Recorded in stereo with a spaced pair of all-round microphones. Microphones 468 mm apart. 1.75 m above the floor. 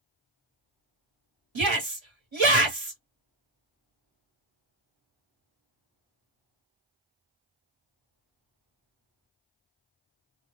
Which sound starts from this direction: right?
A shout, at 1.6 s.